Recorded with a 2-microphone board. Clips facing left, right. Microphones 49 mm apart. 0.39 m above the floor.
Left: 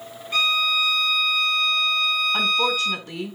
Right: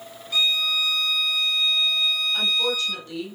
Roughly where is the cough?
No cough in this recording.